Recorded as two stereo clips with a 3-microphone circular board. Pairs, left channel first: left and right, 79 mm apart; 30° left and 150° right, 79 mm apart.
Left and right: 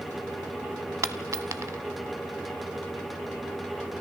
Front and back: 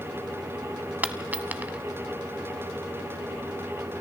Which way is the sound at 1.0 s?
90° right.